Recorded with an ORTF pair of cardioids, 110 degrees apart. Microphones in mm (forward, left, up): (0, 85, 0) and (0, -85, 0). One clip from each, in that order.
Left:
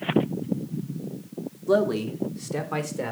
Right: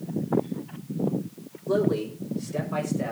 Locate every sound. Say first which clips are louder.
1.7 s a man speaking: left 2 dB; 55° left, 2.5 m; by 3.1 s 60° left, 4.5 m